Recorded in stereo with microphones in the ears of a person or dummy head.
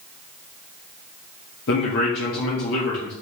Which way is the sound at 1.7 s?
60° left (ahead or behind).